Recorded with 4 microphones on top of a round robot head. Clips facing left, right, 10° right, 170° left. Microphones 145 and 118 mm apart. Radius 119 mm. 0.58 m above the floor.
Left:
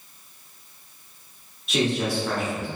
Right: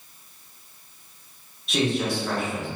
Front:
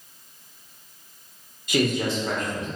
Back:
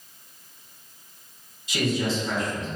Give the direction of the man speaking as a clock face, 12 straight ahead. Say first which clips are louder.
Even, front 2 dB; 12 o'clock.